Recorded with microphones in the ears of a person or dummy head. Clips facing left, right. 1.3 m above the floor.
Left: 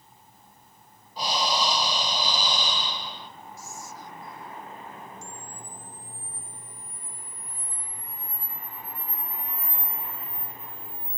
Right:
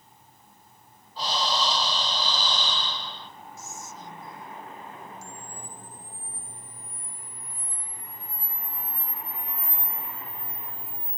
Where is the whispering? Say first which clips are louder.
Even; 20° right (ahead or behind), 0.6 m.